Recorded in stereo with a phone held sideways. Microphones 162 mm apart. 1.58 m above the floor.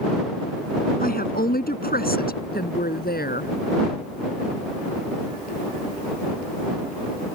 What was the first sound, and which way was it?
A woman speaking, 65° left (ahead or behind).